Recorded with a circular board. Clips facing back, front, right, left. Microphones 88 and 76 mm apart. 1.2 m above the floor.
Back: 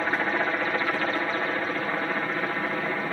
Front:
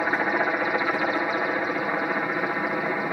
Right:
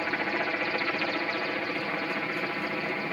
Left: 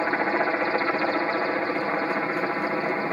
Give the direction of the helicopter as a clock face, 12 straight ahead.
10 o'clock.